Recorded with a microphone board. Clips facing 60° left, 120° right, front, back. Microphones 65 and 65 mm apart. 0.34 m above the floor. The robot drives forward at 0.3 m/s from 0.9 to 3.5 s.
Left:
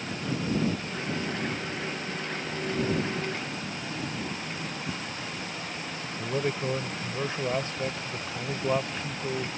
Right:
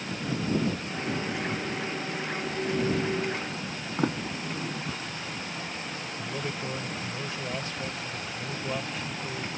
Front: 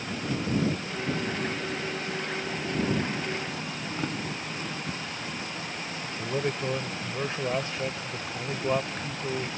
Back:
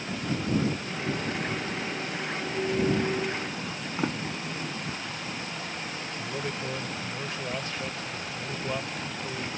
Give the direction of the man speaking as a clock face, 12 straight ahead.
11 o'clock.